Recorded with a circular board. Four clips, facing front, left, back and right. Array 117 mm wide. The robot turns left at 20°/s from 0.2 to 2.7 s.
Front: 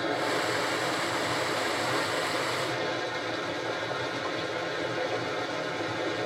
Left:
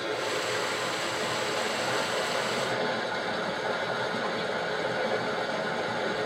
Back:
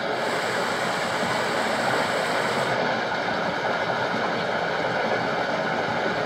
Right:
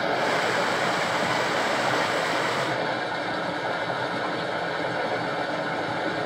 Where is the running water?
115° right, 1.1 m; by 6.3 s 165° right, 1.1 m.